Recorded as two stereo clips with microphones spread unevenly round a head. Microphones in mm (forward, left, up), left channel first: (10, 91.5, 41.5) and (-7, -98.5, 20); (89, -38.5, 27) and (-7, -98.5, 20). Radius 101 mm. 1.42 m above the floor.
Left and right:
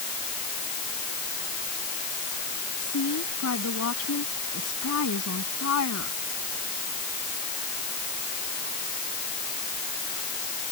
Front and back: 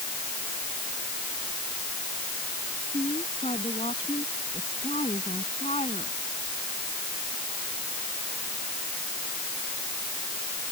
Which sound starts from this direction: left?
A woman speaking, at 2.8 s.